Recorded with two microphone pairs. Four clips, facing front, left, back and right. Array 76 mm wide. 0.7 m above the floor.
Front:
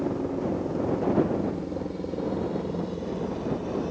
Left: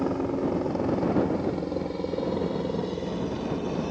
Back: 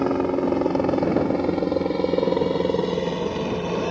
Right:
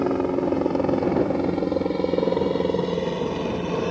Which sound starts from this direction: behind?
A helicopter, at 0.0 s.